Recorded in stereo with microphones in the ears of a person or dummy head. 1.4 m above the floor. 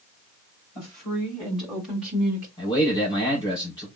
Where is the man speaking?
15° left (ahead or behind), 4 m.